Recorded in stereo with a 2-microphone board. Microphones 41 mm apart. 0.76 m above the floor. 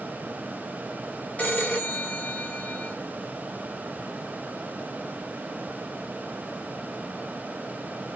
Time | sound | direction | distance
1.4 | a phone ringing | 35° left (ahead or behind) | 1.3 m